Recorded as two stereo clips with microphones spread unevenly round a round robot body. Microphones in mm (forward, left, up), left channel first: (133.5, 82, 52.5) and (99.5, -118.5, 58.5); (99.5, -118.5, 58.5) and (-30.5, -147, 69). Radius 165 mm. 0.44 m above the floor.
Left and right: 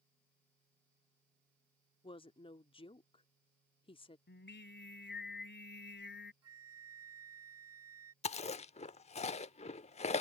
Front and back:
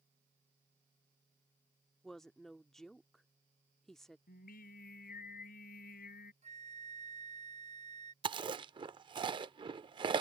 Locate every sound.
2.0 s a woman speaking: 85° left
4.3 s singing: 40° left
6.4 s a flute: 130° right
8.2 s chewing: 135° left